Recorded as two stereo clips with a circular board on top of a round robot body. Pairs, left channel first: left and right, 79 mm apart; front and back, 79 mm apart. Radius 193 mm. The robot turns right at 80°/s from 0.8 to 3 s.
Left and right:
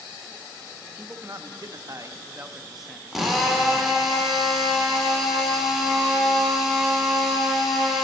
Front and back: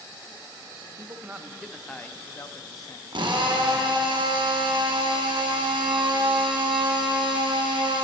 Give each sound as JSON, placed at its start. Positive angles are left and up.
{"t": 0.9, "sound": "a man speaking", "azimuth_deg": -150, "distance_m": 0.7}
{"t": 3.1, "sound": "a drill", "azimuth_deg": 180, "distance_m": 1.0}